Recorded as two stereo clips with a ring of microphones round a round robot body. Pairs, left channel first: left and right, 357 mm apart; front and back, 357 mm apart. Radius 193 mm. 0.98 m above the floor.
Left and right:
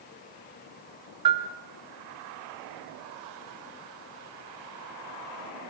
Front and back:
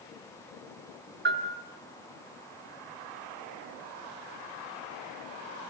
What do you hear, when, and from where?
1.2 s a bell: 115° right, 3 m